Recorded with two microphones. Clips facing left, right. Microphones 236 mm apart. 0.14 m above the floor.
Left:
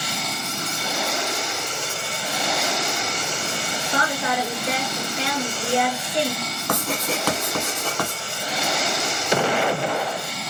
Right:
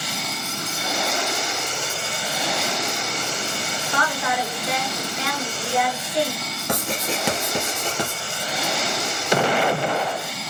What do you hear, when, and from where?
3.9 s a woman speaking: 25° left (ahead or behind), 1.9 m
6.7 s writing: 25° right (ahead or behind), 1.6 m